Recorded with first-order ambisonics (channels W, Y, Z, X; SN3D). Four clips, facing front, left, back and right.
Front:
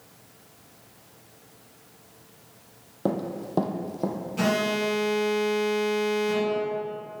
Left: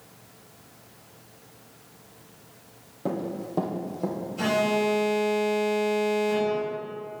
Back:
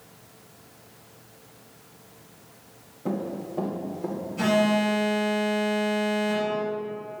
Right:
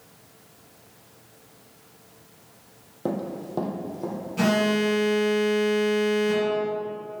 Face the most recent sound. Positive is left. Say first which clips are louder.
# right 2 dB, back 3 dB
turn(degrees=-50)